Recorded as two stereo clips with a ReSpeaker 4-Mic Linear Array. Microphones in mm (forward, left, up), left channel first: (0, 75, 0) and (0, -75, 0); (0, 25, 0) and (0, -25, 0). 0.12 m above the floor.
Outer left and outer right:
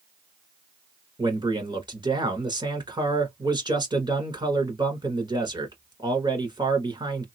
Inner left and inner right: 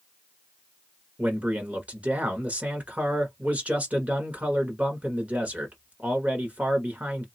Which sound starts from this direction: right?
A man speaking, at 1.2 s.